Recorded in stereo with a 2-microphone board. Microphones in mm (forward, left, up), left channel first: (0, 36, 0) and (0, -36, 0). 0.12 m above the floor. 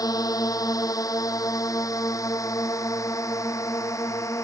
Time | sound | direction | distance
0.0 | a drone | 60° left (ahead or behind) | ?